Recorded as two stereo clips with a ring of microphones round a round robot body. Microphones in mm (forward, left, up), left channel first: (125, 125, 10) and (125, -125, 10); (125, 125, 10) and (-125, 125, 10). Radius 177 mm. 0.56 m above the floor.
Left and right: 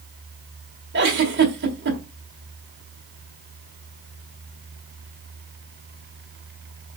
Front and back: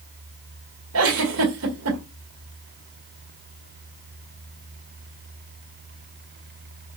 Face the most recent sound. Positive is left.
turn(degrees=-145)